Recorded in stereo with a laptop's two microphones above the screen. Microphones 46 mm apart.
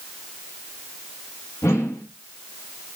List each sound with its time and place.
1.6 s a whoosh: 80° left, 1.2 m